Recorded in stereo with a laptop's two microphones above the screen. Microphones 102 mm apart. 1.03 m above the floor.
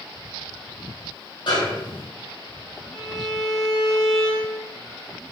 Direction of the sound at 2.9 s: 5° right (ahead or behind).